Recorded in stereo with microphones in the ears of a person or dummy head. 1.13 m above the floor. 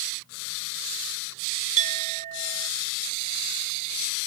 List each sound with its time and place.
1.8 s a clink: 45° right (ahead or behind)